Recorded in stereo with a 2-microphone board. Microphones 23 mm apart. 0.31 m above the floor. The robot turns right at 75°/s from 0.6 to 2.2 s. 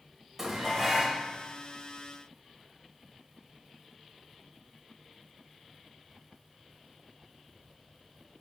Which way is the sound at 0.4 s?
30° right.